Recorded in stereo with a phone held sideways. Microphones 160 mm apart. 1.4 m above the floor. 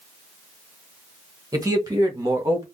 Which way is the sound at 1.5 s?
20° right (ahead or behind).